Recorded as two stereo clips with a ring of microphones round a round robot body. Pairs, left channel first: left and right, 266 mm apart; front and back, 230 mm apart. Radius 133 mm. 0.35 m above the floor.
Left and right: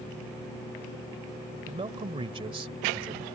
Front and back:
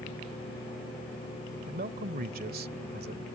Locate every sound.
1.7 s a man speaking: 150° right